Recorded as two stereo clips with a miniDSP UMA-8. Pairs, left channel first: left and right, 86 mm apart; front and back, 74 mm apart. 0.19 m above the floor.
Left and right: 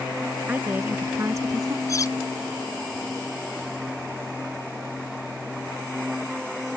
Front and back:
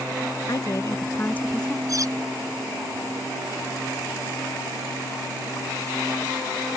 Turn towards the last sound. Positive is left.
turn(degrees=140)